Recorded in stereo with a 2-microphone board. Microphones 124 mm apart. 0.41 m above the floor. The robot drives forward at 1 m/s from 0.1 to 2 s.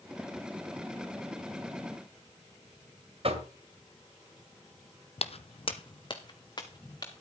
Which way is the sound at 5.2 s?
55° left (ahead or behind).